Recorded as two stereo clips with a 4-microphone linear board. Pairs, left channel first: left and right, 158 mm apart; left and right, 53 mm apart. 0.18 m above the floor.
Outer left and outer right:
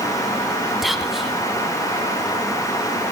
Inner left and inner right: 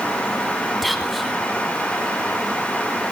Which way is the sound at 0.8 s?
Centre (ahead or behind).